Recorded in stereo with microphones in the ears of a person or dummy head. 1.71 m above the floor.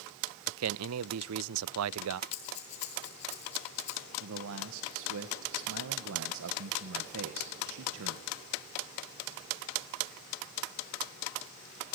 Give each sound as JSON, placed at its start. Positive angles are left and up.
{"t": 0.5, "sound": "a man speaking", "side_deg": -75, "distance_m": 0.6}
{"t": 2.3, "sound": "breathing", "side_deg": 35, "distance_m": 1.7}
{"t": 4.2, "sound": "a man speaking", "side_deg": -70, "distance_m": 1.6}